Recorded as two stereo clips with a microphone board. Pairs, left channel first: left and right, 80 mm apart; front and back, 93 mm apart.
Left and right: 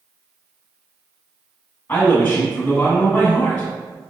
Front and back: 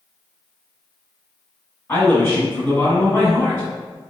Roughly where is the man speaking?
Ahead left.